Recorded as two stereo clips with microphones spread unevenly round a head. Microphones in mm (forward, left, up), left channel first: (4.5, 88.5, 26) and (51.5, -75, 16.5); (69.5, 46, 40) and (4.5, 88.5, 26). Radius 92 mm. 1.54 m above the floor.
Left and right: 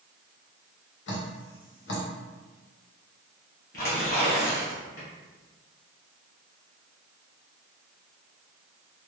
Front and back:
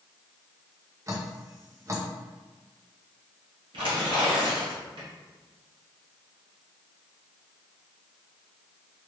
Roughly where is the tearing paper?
Behind left.